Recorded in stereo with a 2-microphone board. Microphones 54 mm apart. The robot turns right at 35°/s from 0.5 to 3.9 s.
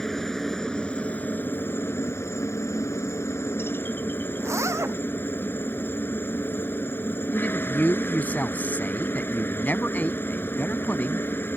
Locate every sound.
0.0 s a helicopter: 10° left; by 11.6 s 130° left
4.4 s a zipper: 65° right (ahead or behind)
7.3 s a man speaking: 35° left (ahead or behind)